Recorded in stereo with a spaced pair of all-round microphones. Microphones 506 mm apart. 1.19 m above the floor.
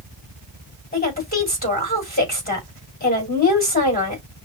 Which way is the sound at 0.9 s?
15° left (ahead or behind).